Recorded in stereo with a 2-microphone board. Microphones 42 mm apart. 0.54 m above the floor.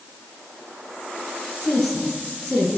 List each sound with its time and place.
1.6 s a woman speaking: 5° left (ahead or behind), 9.5 m